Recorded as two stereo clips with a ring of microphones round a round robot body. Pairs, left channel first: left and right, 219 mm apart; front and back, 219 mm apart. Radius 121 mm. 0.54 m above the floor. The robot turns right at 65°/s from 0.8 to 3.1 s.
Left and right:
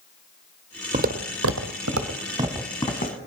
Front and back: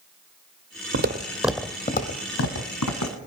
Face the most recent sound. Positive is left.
turn(degrees=40)